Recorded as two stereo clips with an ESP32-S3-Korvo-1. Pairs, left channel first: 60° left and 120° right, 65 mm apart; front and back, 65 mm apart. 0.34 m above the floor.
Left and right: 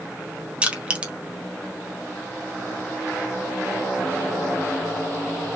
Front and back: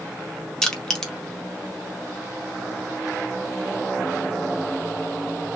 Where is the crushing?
70° right, 1.0 m.